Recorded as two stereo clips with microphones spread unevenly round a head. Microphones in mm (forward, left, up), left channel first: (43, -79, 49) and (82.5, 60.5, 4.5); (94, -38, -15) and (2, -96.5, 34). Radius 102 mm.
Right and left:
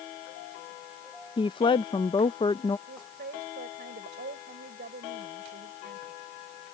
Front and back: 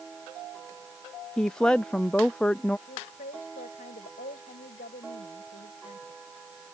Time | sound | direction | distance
1.4 | a woman speaking | 40° right | ?
2.9 | a woman speaking | 60° left | ?